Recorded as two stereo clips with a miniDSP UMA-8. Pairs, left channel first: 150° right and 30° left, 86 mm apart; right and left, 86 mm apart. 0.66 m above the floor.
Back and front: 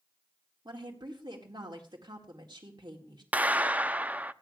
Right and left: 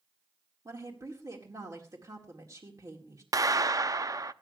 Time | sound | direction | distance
0.7 | a woman speaking | 50° left | 1.9 m
3.3 | a clap | 95° left | 0.6 m